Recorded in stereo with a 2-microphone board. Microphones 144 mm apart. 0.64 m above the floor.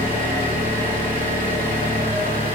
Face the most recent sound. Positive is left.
turn(degrees=-80)